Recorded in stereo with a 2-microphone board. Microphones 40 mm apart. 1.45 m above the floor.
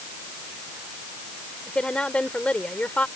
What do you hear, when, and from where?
1.7 s a woman speaking: 25° left (ahead or behind); by 3.1 s 35° left (ahead or behind)